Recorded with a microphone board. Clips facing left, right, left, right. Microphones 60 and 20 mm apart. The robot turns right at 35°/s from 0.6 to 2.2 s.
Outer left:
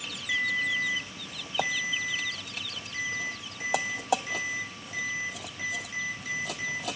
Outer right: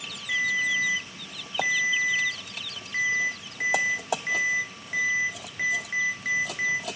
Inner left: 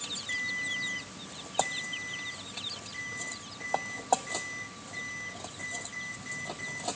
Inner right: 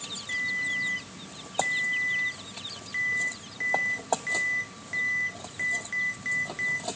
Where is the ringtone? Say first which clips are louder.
Outer right 3 dB, inner right 5 dB; 175° left, 2 m; by 6.9 s 125° right, 2 m.